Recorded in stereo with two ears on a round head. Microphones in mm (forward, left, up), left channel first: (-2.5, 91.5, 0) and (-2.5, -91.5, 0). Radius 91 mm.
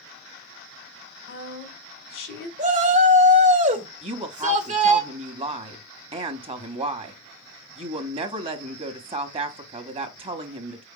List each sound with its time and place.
1.3 s a woman speaking: 60° left (ahead or behind), 2.5 m
2.6 s a shout: 35° right (ahead or behind), 1.8 m
4.0 s a woman speaking: 30° right (ahead or behind), 1.0 m